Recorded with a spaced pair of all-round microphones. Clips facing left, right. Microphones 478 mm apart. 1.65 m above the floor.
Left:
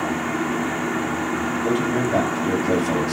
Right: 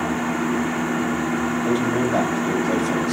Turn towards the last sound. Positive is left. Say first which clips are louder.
# even
turn(degrees=45)  # may be behind; listen again after turning